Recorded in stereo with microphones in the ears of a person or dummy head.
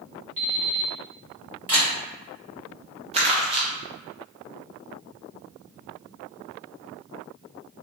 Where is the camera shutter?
10° right (ahead or behind), 1.7 m.